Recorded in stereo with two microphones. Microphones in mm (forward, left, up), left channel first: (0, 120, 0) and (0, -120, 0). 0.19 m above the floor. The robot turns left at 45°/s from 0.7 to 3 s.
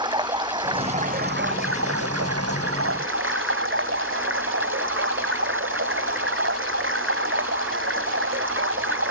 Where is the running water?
20° right; by 9.1 s 120° right.